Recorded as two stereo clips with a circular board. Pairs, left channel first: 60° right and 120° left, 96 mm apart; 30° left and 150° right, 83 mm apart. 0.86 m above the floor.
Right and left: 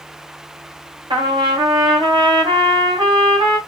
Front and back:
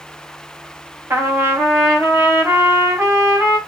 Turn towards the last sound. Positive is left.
turn(degrees=155)